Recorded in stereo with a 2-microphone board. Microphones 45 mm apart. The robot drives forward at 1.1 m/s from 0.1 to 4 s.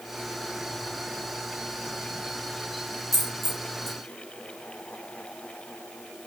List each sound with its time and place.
3.1 s a dropped coin: centre (ahead or behind), 3 m